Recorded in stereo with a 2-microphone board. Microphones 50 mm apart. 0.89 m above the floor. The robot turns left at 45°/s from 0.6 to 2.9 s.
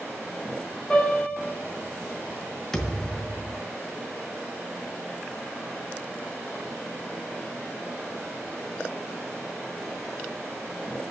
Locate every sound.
0.9 s a piano: 5° left (ahead or behind), 4 m; by 1.5 s 25° right (ahead or behind), 4 m
2.7 s a thud: 10° left (ahead or behind), 2 m; by 3.6 s 5° left (ahead or behind), 2 m